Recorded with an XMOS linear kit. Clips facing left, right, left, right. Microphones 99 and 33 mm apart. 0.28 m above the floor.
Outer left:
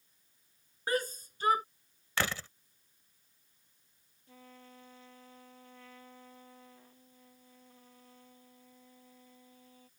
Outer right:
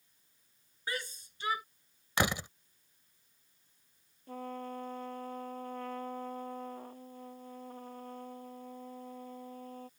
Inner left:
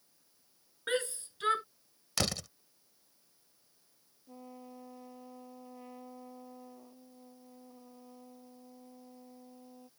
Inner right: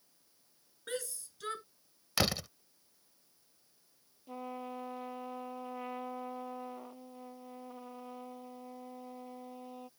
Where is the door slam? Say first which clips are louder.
Outer right 3 dB, inner right 2 dB; 20° right (ahead or behind).